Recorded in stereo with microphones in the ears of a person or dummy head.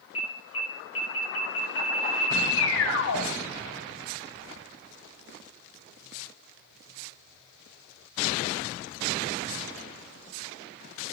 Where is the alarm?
65° left (ahead or behind), 2 m.